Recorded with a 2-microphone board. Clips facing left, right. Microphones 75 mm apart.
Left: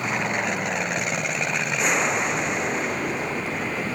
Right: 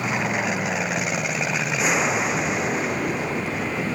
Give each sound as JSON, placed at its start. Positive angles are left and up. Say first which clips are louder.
{"t": 0.0, "sound": "an aircraft", "louder": "right 1 dB", "side_deg": -5}